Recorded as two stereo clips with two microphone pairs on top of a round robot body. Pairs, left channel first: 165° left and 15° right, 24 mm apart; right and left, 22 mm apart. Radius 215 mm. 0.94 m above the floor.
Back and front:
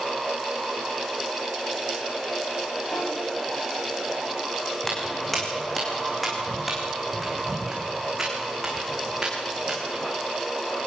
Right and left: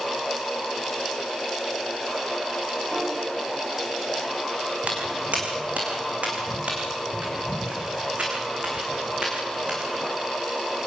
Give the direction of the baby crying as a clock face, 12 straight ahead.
I don't hear a baby crying.